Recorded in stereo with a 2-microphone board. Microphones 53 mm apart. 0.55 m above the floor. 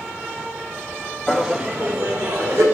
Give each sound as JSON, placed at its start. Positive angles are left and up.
{"t": 1.3, "sound": "laughter", "side_deg": 5, "distance_m": 0.7}